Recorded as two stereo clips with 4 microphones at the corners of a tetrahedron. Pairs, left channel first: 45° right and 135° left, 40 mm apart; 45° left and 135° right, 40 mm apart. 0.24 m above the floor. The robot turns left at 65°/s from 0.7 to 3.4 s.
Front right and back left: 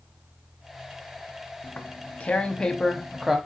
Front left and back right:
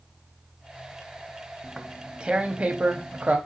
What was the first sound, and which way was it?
Tearing paper, 45° right.